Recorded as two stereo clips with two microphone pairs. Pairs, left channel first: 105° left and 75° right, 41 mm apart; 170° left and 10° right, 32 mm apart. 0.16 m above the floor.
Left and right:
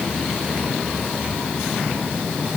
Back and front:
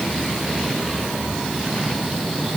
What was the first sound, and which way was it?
Only background noise.